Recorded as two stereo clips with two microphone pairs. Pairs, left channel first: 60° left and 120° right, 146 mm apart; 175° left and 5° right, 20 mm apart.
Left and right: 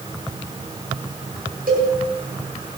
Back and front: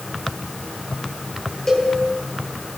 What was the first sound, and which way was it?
A cowbell, 120° right.